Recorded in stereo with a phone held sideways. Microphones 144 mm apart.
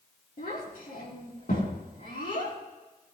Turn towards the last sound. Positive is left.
turn(degrees=85)